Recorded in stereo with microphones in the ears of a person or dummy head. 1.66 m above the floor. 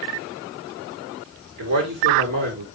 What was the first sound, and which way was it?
A man speaking, 65° right (ahead or behind).